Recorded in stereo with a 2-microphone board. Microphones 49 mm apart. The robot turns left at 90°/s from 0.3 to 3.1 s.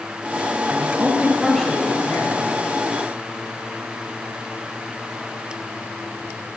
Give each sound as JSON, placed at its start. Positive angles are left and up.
{"t": 0.7, "sound": "a man speaking", "azimuth_deg": -105, "distance_m": 3.0}